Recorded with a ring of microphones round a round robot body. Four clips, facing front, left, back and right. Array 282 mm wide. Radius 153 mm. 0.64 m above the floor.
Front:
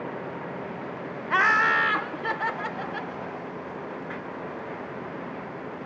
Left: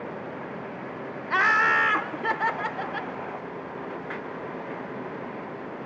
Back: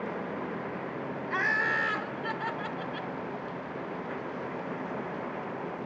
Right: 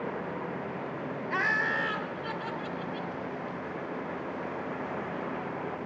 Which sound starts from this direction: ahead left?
Laughter, at 1.3 s.